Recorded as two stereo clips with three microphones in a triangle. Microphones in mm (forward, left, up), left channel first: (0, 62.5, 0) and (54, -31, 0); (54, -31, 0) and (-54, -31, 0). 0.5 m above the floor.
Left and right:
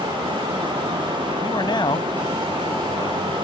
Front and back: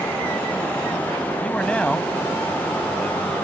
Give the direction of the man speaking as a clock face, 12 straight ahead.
9 o'clock.